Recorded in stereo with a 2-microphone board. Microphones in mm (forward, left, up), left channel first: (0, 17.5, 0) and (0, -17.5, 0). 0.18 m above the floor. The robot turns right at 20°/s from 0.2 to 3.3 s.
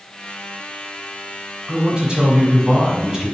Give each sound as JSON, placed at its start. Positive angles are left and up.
{"t": 1.7, "sound": "a man speaking", "azimuth_deg": -65, "distance_m": 1.6}